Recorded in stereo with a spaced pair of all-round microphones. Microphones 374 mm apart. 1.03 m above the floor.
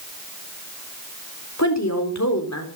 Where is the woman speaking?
45° left (ahead or behind), 4 m.